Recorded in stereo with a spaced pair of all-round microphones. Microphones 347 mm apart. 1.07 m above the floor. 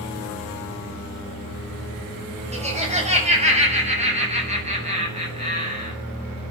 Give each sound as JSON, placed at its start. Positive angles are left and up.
{"t": 2.5, "sound": "laughter", "side_deg": -20, "distance_m": 7.5}